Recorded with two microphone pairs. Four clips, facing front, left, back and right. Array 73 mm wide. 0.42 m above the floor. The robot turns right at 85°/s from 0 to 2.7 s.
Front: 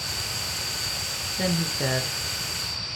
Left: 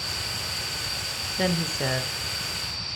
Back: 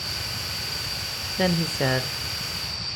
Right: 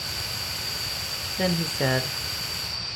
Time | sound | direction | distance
1.4 | a woman speaking | 175° left | 1.2 m